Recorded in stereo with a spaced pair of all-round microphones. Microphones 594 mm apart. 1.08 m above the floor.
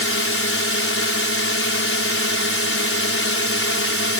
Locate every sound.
0.0 s a drone: 20° left (ahead or behind)